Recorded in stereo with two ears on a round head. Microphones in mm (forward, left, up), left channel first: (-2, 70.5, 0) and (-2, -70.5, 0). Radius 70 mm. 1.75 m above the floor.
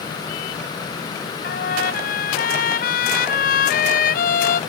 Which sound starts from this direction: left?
A trumpet, at 1.4 s.